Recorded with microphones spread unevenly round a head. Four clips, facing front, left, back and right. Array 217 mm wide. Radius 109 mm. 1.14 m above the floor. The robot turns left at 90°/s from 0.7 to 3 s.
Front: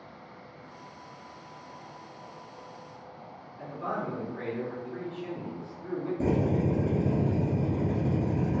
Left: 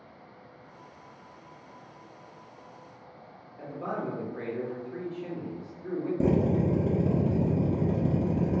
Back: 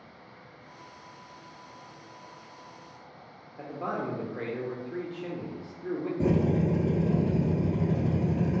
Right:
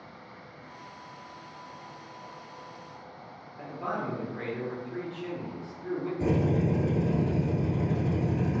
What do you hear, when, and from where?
3.6 s a man speaking: 165° left, 1.2 m
6.2 s a drill: 105° left, 1.8 m